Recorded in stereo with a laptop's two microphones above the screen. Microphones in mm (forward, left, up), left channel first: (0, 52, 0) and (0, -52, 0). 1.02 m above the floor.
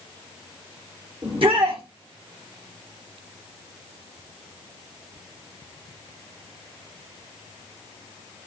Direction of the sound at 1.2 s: 60° right (ahead or behind).